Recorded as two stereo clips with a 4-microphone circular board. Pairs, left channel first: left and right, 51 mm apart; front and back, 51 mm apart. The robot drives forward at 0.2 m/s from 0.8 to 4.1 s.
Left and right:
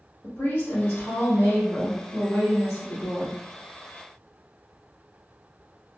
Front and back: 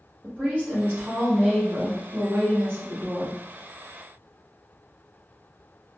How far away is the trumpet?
No trumpet in this recording.